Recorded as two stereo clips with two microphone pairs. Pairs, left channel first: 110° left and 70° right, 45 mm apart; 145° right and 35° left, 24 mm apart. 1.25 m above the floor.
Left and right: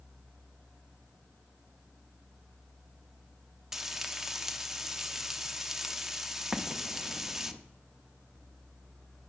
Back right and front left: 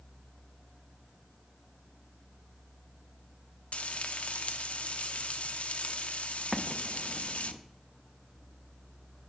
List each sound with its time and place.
3.7 s frying: 145° right, 0.6 m
6.5 s an explosion: 35° right, 0.6 m